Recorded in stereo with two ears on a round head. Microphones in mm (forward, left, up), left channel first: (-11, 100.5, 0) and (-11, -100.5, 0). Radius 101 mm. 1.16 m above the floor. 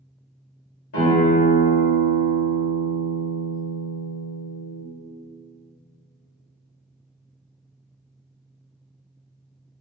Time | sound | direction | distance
0.9 | a guitar | 75° left (ahead or behind) | 1.9 m